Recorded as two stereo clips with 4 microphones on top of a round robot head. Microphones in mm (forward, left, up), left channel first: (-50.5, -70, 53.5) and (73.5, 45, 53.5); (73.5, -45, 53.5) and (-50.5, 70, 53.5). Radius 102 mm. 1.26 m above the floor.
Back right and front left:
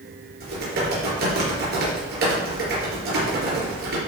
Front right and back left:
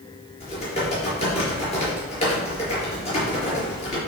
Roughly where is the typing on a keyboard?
Ahead.